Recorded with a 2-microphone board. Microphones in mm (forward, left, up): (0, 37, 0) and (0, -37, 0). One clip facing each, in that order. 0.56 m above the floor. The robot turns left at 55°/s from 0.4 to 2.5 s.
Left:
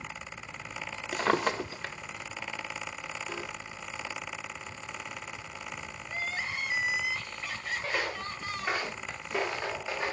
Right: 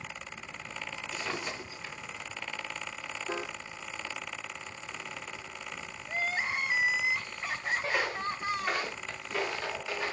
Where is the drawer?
120° left, 0.5 m; by 1.9 s 70° left, 0.5 m.